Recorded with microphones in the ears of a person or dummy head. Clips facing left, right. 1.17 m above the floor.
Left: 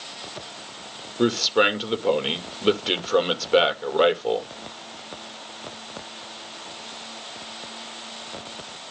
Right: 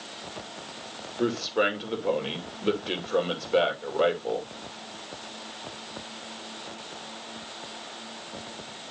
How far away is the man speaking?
About 2 m.